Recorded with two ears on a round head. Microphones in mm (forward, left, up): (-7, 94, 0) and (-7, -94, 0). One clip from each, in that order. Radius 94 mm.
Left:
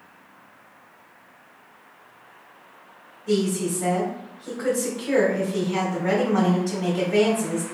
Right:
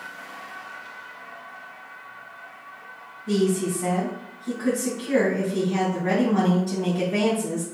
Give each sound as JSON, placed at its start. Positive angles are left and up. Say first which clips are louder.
{"t": 3.3, "sound": "a woman speaking", "louder": "even", "side_deg": 50, "distance_m": 2.0}